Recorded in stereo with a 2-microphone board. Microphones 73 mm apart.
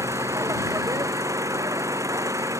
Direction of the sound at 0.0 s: 45° right (ahead or behind).